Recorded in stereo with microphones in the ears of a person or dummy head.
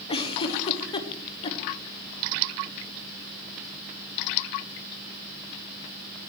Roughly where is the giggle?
Left.